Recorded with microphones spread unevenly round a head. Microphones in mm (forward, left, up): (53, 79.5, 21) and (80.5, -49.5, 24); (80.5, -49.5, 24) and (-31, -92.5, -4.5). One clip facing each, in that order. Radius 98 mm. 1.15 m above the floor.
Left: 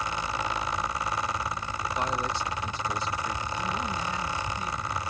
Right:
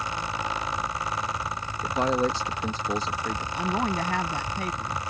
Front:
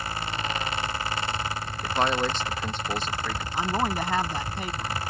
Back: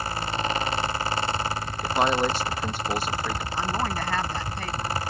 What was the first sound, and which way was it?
A man speaking, 80° right.